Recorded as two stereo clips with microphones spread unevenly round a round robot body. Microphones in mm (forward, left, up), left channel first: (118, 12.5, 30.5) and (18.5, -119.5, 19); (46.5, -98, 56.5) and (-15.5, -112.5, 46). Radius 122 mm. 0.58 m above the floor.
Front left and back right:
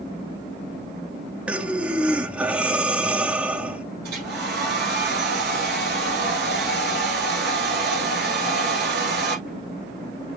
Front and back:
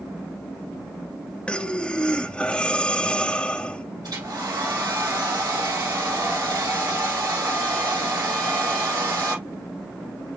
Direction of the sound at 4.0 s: Straight behind.